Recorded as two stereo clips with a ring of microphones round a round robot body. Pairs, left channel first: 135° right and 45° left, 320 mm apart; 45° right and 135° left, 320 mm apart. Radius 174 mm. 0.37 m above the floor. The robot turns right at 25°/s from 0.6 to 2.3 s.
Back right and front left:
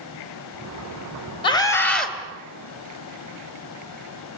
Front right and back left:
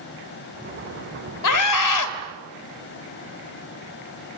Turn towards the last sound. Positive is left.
turn(degrees=-40)